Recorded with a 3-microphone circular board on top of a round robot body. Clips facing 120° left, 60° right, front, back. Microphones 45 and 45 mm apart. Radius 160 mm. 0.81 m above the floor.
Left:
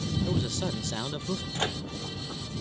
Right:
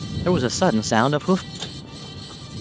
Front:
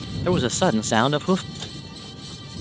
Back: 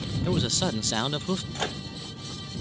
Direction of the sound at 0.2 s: 50° right.